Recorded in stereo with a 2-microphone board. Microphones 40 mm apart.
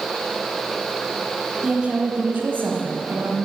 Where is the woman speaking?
20° right (ahead or behind), 1.8 m; by 3.4 s 60° right (ahead or behind), 2.5 m.